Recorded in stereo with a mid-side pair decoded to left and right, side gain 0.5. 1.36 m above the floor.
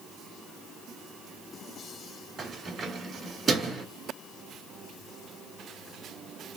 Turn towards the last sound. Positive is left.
turn(degrees=-40)